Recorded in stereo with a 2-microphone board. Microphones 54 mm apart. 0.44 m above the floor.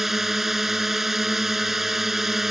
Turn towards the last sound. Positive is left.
turn(degrees=-5)  # may be behind; listen again after turning